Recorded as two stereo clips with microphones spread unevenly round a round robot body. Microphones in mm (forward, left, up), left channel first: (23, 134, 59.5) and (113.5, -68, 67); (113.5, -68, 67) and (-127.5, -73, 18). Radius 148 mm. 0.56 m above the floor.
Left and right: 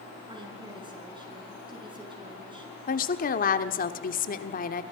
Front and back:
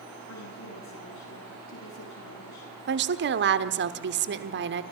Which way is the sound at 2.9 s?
160° left.